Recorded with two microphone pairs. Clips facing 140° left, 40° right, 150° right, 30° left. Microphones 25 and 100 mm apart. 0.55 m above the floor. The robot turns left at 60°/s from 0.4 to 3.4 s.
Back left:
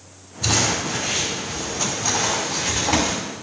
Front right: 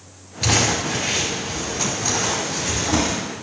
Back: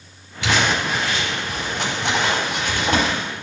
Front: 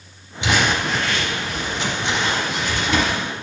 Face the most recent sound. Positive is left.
turn(degrees=150)